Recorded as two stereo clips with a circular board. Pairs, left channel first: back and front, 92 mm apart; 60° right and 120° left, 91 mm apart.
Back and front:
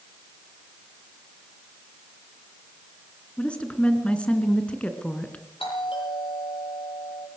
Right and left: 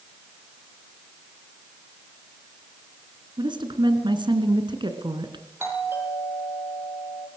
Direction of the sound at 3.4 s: 105° left.